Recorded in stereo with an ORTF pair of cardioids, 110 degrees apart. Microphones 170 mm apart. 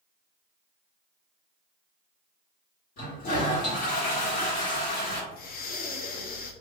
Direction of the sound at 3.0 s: 55° left.